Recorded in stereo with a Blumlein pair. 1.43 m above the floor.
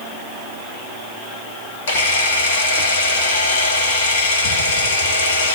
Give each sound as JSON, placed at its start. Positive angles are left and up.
{"t": 1.9, "sound": "a camera shutter", "azimuth_deg": 60, "distance_m": 1.8}